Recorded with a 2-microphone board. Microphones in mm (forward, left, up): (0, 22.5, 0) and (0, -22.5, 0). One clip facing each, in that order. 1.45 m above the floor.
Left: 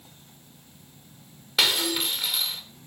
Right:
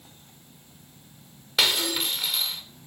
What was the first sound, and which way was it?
Breaking glass, centre (ahead or behind).